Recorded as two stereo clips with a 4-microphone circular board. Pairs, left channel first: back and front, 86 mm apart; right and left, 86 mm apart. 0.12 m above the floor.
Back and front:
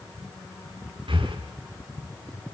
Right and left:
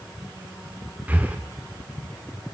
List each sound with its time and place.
1.1 s breathing: 15° left, 4.5 m